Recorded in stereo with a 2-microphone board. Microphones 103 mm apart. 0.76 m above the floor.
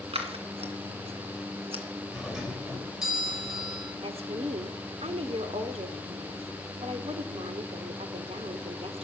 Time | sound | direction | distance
0.1 | scissors | 70° right (ahead or behind) | 2 m
2.1 | a doorbell | 5° right (ahead or behind) | 4 m
4.0 | a woman speaking | 75° right (ahead or behind) | 1.6 m